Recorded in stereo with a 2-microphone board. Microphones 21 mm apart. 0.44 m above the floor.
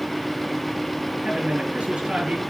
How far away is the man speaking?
About 4.5 m.